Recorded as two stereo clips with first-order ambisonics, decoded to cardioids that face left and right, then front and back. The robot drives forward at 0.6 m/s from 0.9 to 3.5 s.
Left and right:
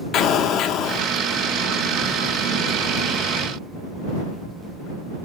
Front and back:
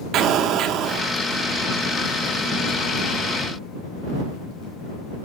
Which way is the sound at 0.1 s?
135° left.